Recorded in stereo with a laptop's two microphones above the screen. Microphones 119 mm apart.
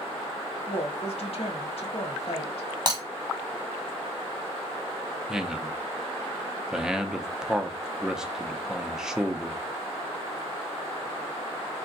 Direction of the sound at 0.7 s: 55° left (ahead or behind).